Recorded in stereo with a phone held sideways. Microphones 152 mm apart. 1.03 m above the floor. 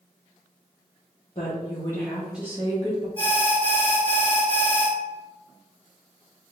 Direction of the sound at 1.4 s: 40° left (ahead or behind).